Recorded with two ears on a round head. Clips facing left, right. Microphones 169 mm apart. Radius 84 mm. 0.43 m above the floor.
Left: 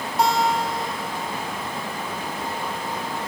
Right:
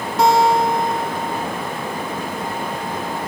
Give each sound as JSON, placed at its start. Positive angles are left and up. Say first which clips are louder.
{"t": 0.2, "sound": "a guitar", "louder": "right 6 dB", "side_deg": -60, "distance_m": 3.5}